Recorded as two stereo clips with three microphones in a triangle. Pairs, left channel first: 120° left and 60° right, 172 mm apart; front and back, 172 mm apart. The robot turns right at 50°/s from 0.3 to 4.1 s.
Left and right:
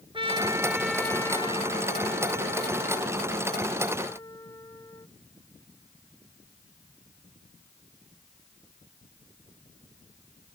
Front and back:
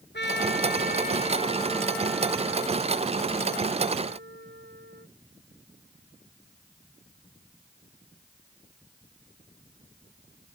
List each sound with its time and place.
0.1 s a trumpet: straight ahead; by 5.1 s 170° right